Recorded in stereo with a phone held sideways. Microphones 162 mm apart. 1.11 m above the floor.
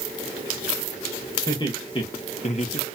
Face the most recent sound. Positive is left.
turn(degrees=50)  # may be behind; listen again after turning